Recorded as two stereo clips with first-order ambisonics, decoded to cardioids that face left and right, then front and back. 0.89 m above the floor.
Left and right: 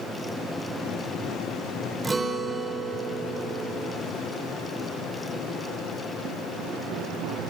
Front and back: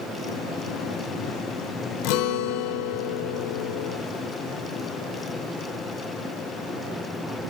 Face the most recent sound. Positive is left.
turn(degrees=-10)